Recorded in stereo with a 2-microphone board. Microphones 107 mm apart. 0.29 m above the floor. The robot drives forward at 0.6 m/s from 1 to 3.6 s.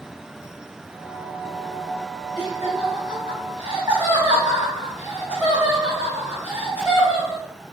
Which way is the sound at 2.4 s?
20° right (ahead or behind).